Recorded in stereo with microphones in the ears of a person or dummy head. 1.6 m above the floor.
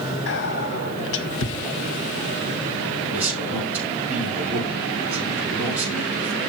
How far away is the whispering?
About 1.4 m.